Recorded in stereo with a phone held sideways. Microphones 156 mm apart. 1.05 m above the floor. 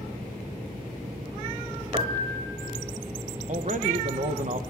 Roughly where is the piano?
Right.